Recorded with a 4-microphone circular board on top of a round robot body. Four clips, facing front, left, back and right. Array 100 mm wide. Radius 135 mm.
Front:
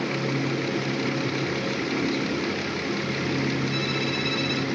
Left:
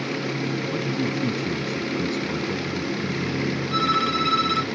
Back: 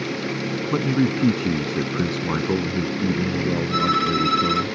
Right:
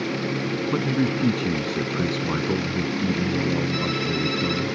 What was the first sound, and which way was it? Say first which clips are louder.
A man speaking: right 3 dB, back 6 dB; 160° right.